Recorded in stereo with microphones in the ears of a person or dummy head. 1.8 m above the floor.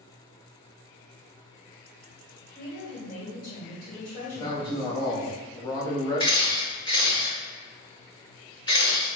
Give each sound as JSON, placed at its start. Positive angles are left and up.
{"t": 2.5, "sound": "a woman speaking", "side_deg": 50, "distance_m": 1.6}
{"t": 4.3, "sound": "a man speaking", "side_deg": 20, "distance_m": 1.0}
{"t": 6.2, "sound": "a camera shutter", "side_deg": 25, "distance_m": 0.8}